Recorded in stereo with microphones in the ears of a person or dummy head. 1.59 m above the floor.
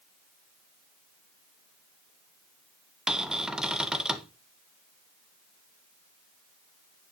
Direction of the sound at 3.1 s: 5° right (ahead or behind).